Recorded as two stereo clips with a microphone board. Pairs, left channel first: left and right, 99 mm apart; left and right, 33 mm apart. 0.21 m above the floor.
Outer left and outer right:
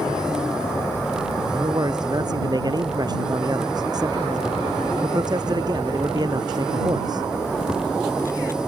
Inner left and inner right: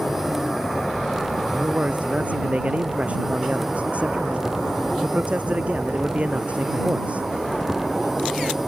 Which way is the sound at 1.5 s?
40° right (ahead or behind).